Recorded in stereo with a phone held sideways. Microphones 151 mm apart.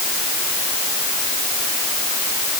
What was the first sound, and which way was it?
Only background noise.